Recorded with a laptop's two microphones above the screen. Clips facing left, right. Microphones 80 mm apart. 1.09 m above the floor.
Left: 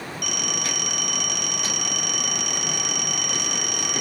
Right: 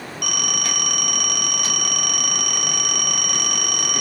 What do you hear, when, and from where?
0.2 s a phone ringing: 60° right (ahead or behind), 0.7 m